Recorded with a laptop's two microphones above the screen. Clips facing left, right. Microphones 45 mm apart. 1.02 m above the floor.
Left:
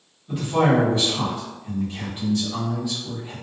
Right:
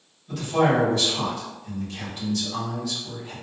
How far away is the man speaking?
About 1.3 m.